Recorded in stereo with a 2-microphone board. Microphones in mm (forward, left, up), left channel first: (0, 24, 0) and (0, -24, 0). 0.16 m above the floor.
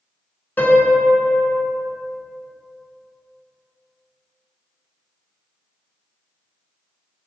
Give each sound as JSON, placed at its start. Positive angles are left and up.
{"t": 0.6, "sound": "a piano", "side_deg": 40, "distance_m": 0.6}